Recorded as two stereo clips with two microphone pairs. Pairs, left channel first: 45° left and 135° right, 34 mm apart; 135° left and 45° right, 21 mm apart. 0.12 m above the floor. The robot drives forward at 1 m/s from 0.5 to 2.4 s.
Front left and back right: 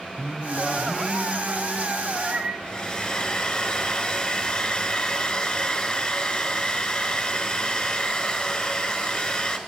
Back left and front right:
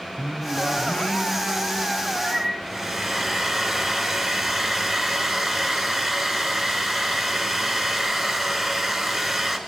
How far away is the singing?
About 1.5 m.